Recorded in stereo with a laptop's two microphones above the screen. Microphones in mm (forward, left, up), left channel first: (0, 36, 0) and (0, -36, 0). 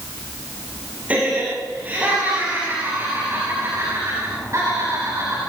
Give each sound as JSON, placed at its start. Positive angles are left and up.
{"t": 1.1, "sound": "laughter", "side_deg": -20, "distance_m": 6.5}